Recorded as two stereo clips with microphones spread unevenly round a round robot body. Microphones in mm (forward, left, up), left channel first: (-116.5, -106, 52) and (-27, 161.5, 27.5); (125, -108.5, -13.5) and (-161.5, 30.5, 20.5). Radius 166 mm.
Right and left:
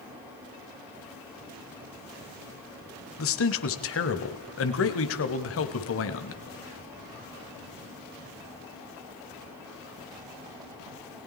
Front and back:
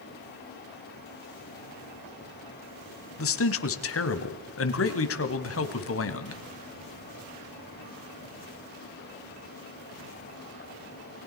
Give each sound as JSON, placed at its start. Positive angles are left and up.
{"t": 3.2, "sound": "a man speaking", "azimuth_deg": -65, "distance_m": 2.0}